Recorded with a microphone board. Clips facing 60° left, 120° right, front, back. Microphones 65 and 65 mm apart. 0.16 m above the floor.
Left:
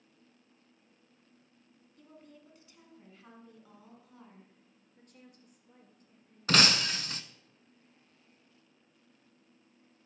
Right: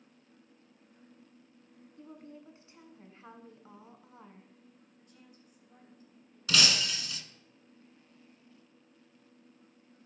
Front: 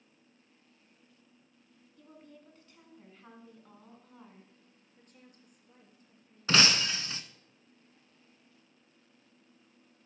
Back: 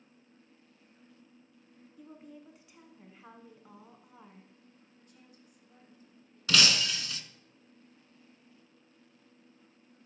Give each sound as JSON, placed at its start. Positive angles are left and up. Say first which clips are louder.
{"t": 2.0, "sound": "a woman speaking", "louder": "right 6 dB, back 4 dB", "azimuth_deg": -120, "distance_m": 1.6}
{"t": 5.0, "sound": "a woman speaking", "louder": "left 5 dB, front 3 dB", "azimuth_deg": 35, "distance_m": 2.5}
{"t": 6.5, "sound": "breaking glass", "louder": "left 3 dB, front 1 dB", "azimuth_deg": 45, "distance_m": 0.8}